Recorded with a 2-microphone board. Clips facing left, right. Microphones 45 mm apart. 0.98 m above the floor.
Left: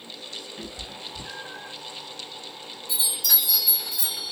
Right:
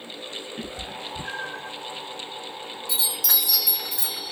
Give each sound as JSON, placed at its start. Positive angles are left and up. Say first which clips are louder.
{"t": 0.6, "sound": "a cat meowing", "louder": "right 4 dB", "side_deg": -45, "distance_m": 1.6}
{"t": 2.9, "sound": "a chime", "louder": "even", "side_deg": -75, "distance_m": 0.8}